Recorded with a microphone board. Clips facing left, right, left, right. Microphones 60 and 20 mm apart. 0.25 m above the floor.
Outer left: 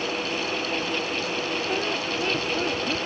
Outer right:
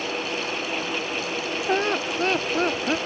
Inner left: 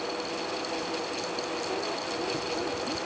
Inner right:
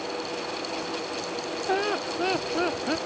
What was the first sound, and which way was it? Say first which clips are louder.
Laughter: outer right 3 dB, inner right 5 dB; 50° right (ahead or behind).